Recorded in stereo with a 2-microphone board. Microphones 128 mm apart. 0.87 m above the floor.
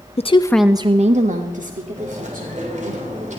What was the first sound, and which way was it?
A woman speaking, 50° left (ahead or behind).